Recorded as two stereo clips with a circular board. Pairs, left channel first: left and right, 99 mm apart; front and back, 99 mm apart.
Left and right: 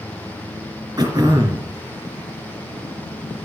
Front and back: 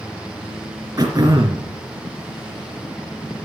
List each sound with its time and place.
1.0 s throat clearing: 130° right, 3 m